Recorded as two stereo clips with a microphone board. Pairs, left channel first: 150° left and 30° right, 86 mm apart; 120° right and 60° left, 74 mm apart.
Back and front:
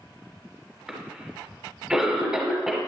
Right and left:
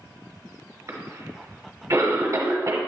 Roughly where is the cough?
Ahead left.